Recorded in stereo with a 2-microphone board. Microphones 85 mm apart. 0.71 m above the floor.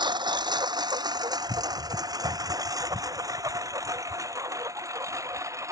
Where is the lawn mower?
65° right (ahead or behind); by 5.7 s 35° right (ahead or behind).